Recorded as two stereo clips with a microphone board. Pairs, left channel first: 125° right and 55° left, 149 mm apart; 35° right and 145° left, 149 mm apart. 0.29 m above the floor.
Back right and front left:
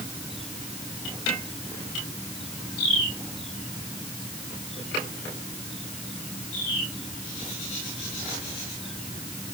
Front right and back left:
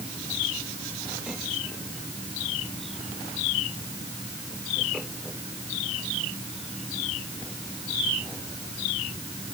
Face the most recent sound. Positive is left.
No sound to turn to.